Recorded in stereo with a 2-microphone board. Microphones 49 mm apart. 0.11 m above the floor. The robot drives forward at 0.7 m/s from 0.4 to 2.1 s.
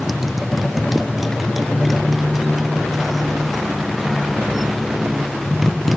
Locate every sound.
0.0 s a motorcycle: 5° right (ahead or behind)